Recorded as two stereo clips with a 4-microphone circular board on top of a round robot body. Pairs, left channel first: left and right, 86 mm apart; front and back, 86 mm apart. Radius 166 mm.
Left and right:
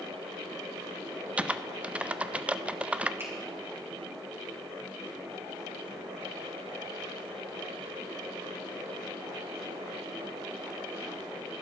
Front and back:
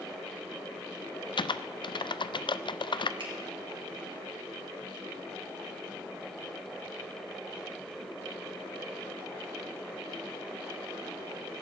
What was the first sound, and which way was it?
Typing on a keyboard, 15° right.